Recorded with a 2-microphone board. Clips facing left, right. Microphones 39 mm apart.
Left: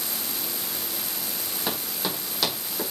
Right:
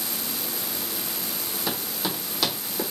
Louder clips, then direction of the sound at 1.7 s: Even; 15° left (ahead or behind).